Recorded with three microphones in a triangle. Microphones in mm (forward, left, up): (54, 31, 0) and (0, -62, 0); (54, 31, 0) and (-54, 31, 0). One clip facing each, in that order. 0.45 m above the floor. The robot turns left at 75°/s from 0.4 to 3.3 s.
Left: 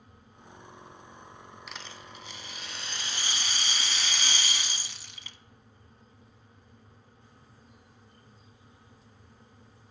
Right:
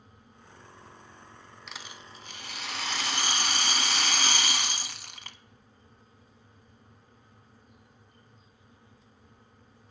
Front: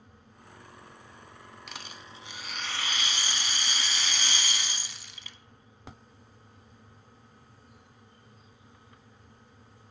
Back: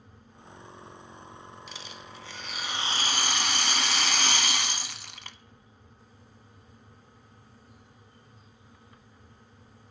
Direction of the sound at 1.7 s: 25° right.